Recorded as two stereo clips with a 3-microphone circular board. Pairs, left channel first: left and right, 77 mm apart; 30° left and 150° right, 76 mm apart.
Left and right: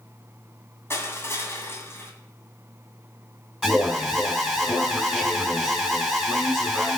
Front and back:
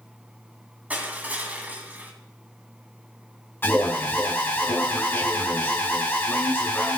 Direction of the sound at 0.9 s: 140° left.